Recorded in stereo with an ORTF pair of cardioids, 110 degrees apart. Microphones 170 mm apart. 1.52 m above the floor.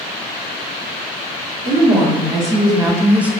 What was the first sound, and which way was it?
A woman speaking, 25° right.